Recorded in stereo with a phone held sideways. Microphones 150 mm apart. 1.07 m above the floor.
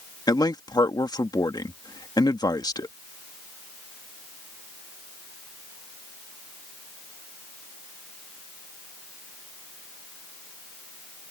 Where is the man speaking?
25° left (ahead or behind).